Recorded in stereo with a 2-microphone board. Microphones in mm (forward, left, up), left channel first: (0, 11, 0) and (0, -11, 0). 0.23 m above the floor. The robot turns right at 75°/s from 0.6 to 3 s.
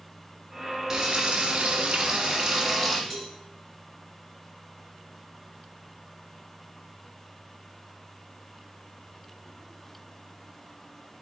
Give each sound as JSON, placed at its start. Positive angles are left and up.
{"t": 0.9, "sound": "frying", "azimuth_deg": -150, "distance_m": 1.6}
{"t": 3.1, "sound": "a cowbell", "side_deg": 0, "distance_m": 2.5}